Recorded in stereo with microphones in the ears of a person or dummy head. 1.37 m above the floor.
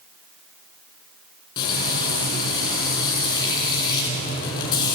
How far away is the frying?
About 3.5 m.